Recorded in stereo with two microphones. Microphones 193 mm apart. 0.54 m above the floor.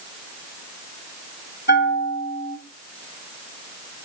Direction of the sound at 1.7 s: 65° left (ahead or behind).